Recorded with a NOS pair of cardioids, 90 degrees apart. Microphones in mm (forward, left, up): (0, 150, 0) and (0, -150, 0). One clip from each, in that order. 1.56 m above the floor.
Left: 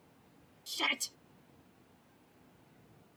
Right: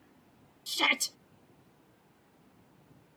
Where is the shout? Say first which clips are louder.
Right 6 dB; 40° right.